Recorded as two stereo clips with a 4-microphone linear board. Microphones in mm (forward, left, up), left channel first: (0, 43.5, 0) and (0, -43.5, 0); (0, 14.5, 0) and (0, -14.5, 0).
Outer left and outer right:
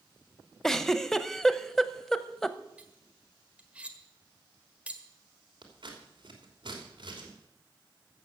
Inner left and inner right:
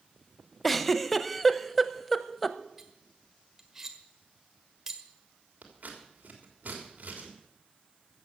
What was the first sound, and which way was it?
A giggle, 5° left (ahead or behind).